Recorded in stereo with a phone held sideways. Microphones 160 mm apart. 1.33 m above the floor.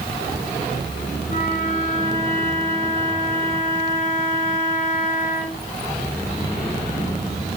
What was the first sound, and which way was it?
A flute, 45° left (ahead or behind).